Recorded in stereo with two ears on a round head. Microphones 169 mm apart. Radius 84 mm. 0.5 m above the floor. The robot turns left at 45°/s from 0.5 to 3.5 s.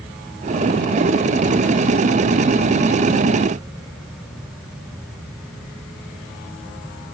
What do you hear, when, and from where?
Only background noise.